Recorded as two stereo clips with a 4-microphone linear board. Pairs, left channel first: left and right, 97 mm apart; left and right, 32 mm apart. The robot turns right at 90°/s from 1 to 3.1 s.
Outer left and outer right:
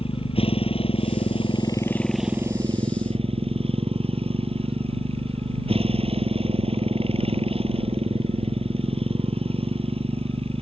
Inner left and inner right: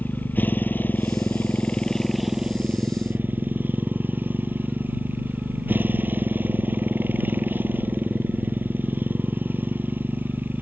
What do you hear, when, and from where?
0.0 s a motorcycle: 75° left; by 10.6 s 95° right